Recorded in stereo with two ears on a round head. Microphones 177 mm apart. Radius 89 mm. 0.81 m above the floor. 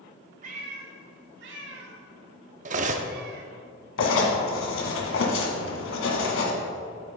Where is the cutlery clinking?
40° right (ahead or behind), 0.7 m.